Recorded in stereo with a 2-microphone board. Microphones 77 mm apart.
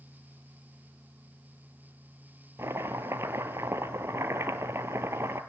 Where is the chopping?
35° right (ahead or behind), 1.3 m.